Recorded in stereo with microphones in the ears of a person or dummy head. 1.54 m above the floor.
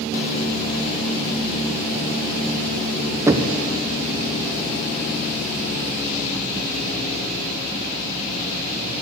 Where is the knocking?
15° right (ahead or behind), 0.5 m.